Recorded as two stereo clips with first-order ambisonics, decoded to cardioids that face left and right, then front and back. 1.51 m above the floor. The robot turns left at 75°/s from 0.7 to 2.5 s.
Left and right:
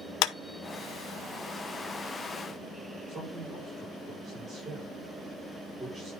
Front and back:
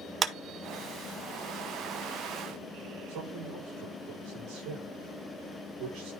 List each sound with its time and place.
0.2 s a clap: 120° left, 0.7 m
3.1 s a man speaking: 170° right, 5.5 m